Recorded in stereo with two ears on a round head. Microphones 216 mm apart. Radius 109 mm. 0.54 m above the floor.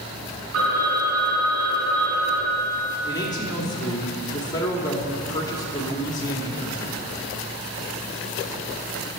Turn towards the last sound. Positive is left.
turn(degrees=15)  # may be behind; listen again after turning